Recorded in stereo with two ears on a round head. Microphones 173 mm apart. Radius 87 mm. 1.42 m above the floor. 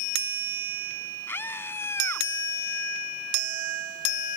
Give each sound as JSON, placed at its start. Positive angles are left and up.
{"t": 1.3, "sound": "a scream", "side_deg": 10}